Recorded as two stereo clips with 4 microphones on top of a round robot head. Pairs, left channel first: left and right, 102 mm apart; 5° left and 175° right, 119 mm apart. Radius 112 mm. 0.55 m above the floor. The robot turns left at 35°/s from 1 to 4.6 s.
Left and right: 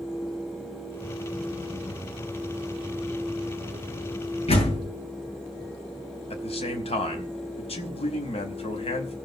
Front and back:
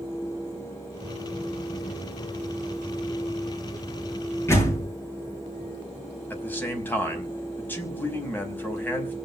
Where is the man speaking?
80° left, 5 m.